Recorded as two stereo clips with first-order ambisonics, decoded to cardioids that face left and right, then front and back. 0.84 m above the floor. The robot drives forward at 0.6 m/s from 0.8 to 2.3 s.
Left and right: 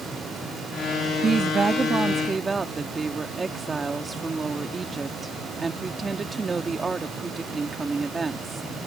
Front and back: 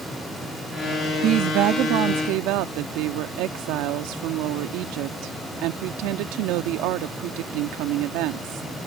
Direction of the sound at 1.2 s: 150° right.